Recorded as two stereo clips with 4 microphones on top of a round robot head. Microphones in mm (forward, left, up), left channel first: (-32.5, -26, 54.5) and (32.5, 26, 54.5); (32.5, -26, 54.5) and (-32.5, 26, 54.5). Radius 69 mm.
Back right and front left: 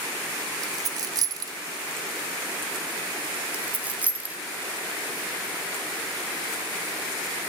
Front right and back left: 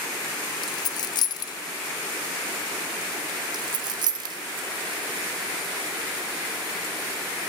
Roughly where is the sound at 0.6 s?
Ahead.